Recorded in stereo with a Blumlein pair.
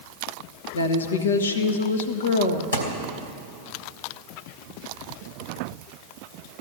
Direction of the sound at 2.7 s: 70° left.